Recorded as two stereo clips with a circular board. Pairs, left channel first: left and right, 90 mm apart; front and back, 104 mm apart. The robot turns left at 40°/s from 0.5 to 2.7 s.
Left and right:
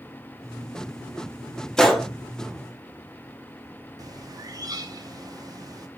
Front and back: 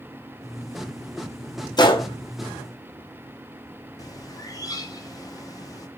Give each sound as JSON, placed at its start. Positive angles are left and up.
{"t": 1.8, "sound": "a gunshot", "azimuth_deg": 10, "distance_m": 0.7}
{"t": 4.0, "sound": "a bird", "azimuth_deg": -50, "distance_m": 0.5}